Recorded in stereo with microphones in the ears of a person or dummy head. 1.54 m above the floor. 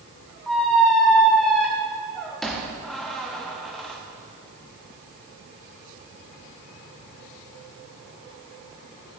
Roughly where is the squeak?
Centre.